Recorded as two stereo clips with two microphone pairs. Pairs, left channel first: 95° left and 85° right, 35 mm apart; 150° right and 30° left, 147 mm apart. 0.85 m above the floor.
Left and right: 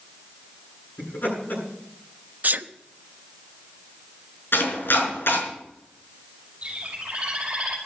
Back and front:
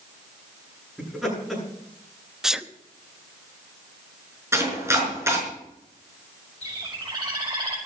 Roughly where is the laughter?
Behind left.